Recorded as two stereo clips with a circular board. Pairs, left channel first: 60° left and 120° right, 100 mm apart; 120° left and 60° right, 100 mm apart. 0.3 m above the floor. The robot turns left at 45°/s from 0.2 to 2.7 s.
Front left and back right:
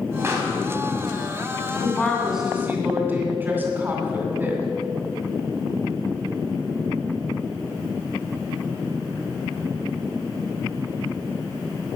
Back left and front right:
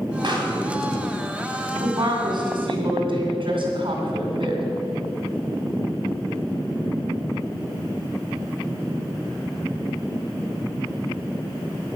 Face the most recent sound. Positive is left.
turn(degrees=-55)